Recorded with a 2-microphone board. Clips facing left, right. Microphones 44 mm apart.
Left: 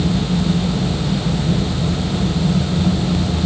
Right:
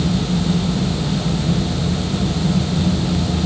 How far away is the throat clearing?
No throat clearing in this recording.